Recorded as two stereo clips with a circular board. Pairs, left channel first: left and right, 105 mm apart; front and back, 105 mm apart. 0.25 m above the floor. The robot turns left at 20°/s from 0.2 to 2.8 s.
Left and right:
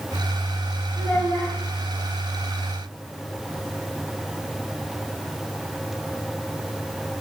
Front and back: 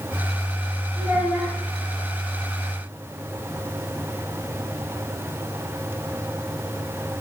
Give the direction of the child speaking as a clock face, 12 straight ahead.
7 o'clock.